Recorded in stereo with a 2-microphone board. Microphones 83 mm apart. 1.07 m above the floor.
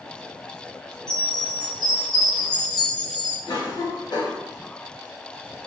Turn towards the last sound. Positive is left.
turn(degrees=60)  # may be behind; listen again after turning